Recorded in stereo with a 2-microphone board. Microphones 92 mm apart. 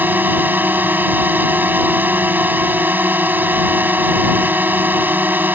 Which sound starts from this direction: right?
A drone, at 0.0 s.